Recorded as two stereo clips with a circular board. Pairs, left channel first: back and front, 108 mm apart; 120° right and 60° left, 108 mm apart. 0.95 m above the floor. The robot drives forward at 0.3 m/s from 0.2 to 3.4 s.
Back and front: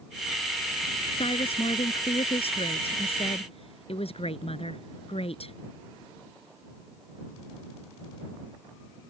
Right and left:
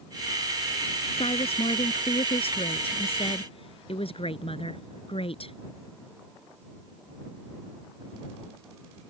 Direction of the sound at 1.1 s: 150° right.